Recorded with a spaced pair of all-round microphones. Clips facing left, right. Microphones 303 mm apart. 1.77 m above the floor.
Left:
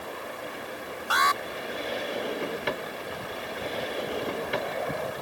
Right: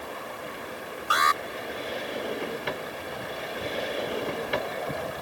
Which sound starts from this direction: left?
An alarm, at 1.1 s.